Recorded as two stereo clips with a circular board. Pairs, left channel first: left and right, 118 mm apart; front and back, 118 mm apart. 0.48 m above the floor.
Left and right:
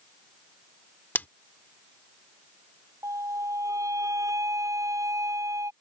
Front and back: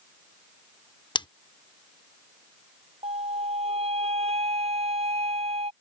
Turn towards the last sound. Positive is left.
turn(degrees=-155)